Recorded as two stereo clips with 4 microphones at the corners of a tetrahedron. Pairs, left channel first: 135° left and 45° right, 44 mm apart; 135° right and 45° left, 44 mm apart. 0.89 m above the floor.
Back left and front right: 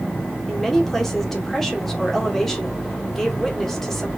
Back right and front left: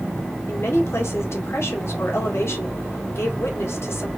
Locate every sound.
0.5 s a woman speaking: 140° right, 1.8 m